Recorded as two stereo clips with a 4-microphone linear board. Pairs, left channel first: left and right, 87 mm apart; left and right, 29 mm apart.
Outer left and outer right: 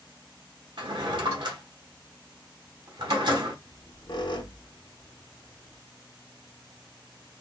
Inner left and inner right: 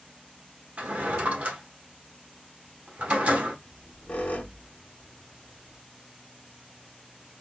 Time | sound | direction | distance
0.8 | a drawer | 60° right (ahead or behind) | 1.0 m
3.6 | a squeak | 60° left (ahead or behind) | 0.8 m